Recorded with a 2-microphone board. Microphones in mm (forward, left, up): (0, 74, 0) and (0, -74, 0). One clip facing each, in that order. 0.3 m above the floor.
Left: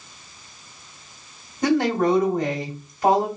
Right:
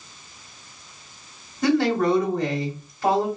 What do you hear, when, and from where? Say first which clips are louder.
1.6 s a woman speaking: even; 20° left (ahead or behind), 1.3 m